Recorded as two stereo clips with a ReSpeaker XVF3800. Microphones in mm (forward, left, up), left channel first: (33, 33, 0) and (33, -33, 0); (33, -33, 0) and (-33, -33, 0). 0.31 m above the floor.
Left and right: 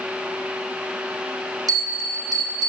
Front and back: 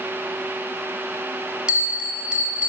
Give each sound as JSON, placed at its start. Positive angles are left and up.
{"t": 1.7, "sound": "a bell", "azimuth_deg": -100, "distance_m": 1.3}